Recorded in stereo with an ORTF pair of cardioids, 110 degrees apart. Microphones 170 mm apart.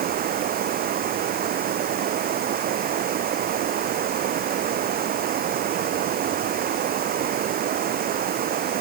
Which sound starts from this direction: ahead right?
Running water, at 0.0 s.